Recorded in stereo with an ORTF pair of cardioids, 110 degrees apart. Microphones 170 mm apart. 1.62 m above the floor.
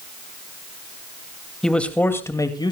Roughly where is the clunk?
I don't hear a clunk.